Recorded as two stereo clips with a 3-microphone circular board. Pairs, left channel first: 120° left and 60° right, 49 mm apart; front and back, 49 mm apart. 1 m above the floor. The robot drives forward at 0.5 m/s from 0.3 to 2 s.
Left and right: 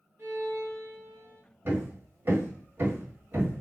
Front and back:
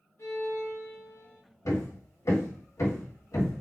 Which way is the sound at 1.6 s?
10° right.